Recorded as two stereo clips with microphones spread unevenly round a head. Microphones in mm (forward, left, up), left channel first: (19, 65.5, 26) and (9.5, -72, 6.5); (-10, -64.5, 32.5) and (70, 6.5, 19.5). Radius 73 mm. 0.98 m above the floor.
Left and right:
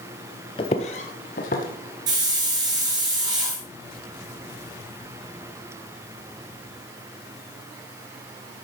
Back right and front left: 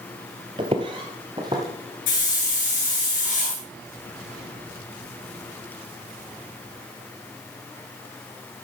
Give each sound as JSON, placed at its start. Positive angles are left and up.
{"t": 0.6, "sound": "footsteps", "azimuth_deg": 90, "distance_m": 1.2}
{"t": 2.1, "sound": "a hiss", "azimuth_deg": -160, "distance_m": 4.5}